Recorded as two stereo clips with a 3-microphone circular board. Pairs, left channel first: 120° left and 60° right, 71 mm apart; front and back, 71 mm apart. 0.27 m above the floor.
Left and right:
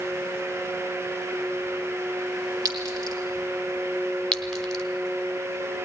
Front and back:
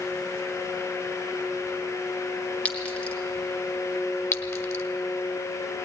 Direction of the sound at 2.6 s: 75° right.